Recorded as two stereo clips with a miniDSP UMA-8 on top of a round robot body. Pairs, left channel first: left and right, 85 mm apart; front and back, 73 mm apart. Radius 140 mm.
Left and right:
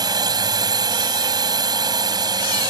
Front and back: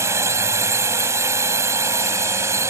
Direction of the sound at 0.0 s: 130° right.